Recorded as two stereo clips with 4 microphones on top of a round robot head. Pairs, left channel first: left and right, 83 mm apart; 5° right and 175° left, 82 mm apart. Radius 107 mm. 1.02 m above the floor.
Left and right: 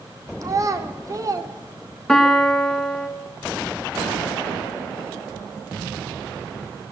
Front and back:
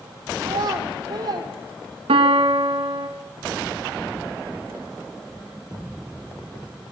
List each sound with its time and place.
0.4 s a child speaking: 140° right, 3 m
2.1 s a piano: 175° left, 2.5 m